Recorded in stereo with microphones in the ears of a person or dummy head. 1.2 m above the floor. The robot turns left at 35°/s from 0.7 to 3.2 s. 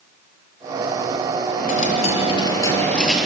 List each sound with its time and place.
1.6 s a dropped coin: 55° left, 5 m; by 3.2 s straight ahead, 5 m